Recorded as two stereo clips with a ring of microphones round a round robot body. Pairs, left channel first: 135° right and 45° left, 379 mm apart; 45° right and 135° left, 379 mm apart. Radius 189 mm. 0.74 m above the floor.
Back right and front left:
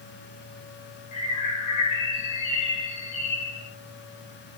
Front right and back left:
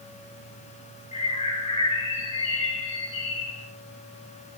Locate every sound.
1.1 s a bird: 120° right, 8.5 m